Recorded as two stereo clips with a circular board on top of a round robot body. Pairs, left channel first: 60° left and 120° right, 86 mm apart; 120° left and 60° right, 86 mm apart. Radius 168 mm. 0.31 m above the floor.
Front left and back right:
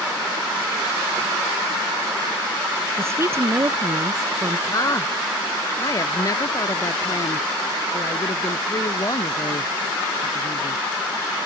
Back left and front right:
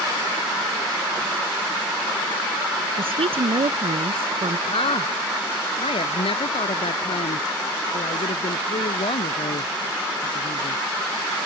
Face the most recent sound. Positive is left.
turn(degrees=110)